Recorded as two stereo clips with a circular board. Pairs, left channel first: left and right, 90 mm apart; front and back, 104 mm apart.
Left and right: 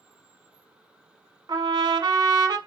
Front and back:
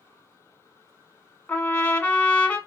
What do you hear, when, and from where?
1.5 s a trumpet: 70° right, 0.7 m